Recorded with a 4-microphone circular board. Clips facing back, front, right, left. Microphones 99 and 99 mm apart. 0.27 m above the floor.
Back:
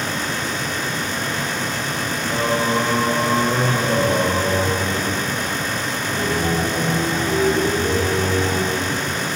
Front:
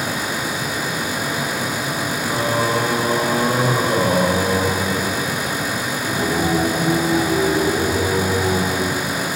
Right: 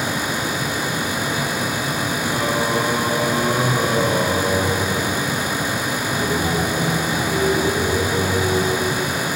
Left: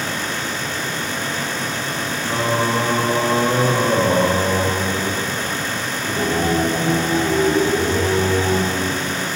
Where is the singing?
50° left, 9.5 m.